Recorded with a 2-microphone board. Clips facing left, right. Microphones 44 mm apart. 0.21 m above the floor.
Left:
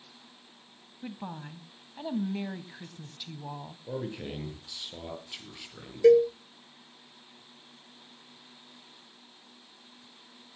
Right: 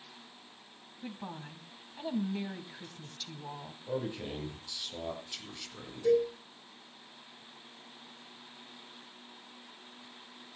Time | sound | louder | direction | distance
1.0 | a woman speaking | left 3 dB | 15° left (ahead or behind) | 1.0 m
3.9 | a man speaking | even | 15° left (ahead or behind) | 4.5 m
6.0 | a cowbell | left 8 dB | 75° left (ahead or behind) | 1.0 m